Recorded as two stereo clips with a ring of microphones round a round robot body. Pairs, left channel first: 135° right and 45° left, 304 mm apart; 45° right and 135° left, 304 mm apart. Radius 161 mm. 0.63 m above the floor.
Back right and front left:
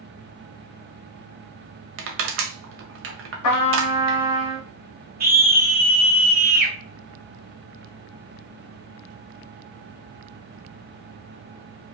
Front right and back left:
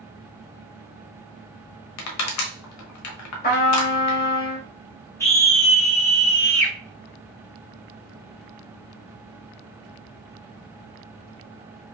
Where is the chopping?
I don't hear chopping.